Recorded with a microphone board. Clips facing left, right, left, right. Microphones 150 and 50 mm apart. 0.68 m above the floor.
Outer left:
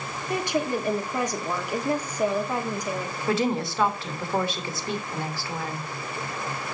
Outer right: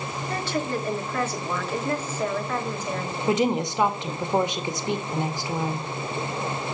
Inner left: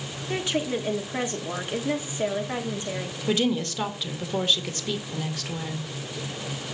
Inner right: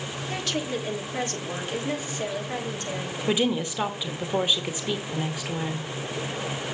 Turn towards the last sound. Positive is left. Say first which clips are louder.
# outer right 2 dB, even
turn(degrees=-20)  # may be behind; listen again after turning